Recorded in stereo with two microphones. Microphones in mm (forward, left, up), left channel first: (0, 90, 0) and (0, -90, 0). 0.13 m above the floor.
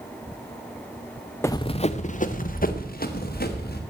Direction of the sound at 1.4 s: 15° left (ahead or behind).